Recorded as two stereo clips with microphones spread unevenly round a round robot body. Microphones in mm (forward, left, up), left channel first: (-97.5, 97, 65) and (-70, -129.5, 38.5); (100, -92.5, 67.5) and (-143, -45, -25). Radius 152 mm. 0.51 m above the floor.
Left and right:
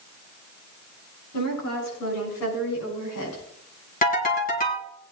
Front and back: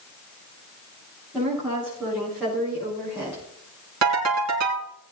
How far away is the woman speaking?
About 7 m.